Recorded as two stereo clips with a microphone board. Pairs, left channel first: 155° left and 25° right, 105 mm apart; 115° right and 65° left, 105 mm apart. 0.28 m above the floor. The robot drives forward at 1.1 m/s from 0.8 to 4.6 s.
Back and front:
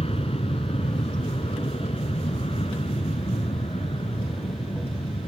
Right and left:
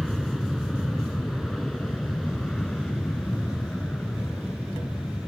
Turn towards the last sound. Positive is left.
turn(degrees=165)